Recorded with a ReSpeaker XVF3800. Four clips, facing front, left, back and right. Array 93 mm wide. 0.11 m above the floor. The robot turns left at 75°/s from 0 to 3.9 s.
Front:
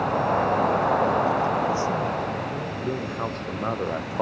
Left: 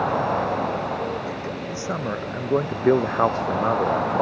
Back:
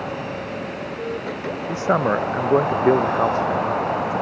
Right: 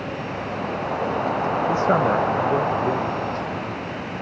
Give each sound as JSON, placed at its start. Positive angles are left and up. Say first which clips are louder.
{"t": 0.0, "sound": "an insect", "louder": "left 7 dB, front 6 dB", "azimuth_deg": 65}
{"t": 1.7, "sound": "a man speaking", "louder": "right 10 dB, back 5 dB", "azimuth_deg": -130}